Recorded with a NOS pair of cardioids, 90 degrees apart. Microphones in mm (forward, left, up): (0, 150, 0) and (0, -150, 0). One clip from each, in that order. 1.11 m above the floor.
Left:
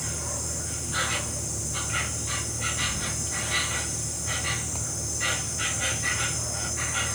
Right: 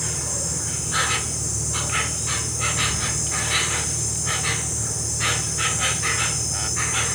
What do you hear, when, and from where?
0.0 s an insect: 65° right, 1.8 m